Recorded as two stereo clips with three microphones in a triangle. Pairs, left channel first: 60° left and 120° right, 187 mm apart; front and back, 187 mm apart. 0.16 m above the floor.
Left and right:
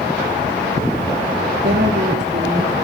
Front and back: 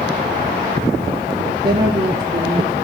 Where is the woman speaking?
120° right, 2.5 m.